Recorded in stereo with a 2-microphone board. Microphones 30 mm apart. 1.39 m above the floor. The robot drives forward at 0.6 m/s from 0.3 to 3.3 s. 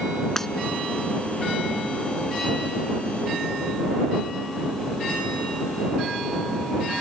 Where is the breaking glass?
15° left (ahead or behind).